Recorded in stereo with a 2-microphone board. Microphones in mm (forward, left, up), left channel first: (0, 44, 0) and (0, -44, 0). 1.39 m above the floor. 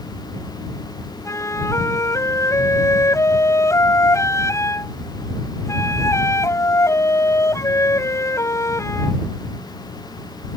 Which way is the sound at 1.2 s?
35° left (ahead or behind).